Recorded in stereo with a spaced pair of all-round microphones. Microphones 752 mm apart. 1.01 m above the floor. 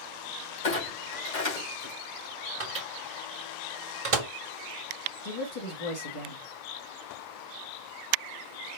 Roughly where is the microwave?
Right.